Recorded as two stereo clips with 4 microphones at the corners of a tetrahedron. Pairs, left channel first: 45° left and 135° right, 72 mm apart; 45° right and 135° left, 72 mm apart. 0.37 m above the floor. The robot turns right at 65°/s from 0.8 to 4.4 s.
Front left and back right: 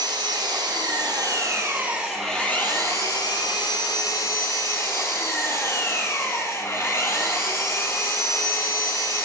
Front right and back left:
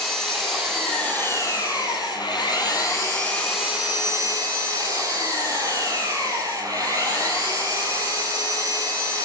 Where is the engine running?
135° right, 6 m; by 9.3 s 100° left, 6 m.